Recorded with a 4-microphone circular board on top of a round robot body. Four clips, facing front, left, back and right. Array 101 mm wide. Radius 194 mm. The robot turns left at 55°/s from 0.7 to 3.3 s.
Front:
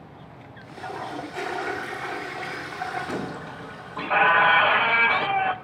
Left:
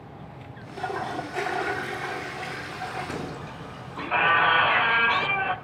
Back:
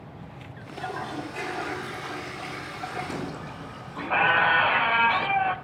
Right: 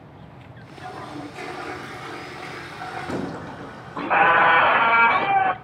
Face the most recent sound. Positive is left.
turn(degrees=-80)